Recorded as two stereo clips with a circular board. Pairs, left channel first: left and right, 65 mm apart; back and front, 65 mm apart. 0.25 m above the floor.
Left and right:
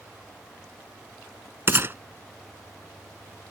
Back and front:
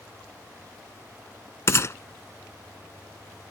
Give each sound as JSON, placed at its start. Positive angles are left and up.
{"t": 1.7, "sound": "a gunshot", "azimuth_deg": -140}